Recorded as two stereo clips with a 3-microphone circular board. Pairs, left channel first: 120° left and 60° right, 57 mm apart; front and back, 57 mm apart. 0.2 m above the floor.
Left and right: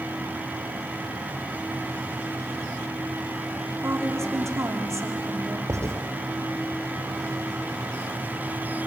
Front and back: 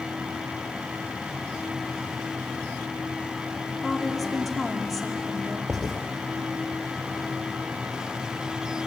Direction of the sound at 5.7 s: 100° right.